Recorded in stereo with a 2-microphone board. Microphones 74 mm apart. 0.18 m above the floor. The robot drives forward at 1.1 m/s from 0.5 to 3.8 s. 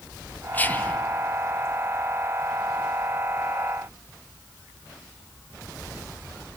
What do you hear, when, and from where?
0.5 s whispering: 20° left (ahead or behind), 1.1 m